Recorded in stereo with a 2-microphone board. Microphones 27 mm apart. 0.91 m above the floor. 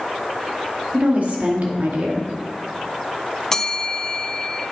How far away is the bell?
About 0.6 m.